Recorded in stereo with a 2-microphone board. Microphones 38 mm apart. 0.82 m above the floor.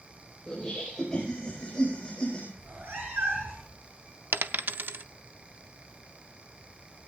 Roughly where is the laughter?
Centre.